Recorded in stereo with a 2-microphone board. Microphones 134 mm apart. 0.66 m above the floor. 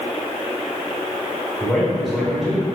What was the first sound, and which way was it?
A man speaking, centre (ahead or behind).